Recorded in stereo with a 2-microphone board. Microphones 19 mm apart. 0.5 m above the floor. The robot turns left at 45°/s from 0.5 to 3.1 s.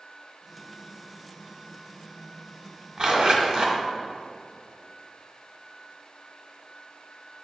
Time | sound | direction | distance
3.0 | a zipper | 50° right (ahead or behind) | 0.7 m